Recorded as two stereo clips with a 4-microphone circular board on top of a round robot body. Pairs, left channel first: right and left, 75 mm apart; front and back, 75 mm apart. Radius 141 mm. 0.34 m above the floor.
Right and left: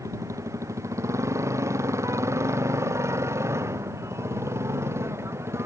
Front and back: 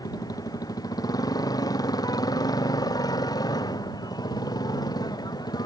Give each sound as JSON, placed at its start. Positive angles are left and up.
{"t": 0.0, "sound": "a motorcycle", "azimuth_deg": 40}